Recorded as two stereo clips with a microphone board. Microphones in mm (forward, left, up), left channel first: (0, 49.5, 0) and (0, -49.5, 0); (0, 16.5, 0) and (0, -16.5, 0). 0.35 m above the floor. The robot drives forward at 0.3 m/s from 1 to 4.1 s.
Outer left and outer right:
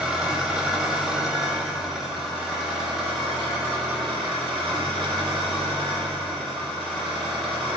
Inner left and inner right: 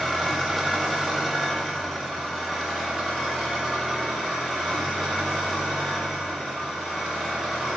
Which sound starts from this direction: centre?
An engine running, at 0.0 s.